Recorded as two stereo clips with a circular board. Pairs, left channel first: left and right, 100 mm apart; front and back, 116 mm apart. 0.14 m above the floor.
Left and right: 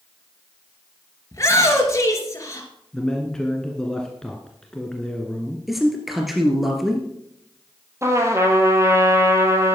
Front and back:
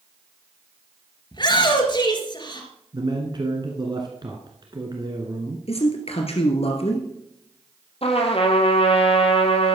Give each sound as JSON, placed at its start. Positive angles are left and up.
{"t": 1.3, "sound": "a shout", "azimuth_deg": 35, "distance_m": 2.5}
{"t": 2.9, "sound": "a man speaking", "azimuth_deg": 170, "distance_m": 1.4}
{"t": 5.7, "sound": "a man speaking", "azimuth_deg": 0, "distance_m": 2.0}
{"t": 8.0, "sound": "a trumpet", "azimuth_deg": -30, "distance_m": 1.9}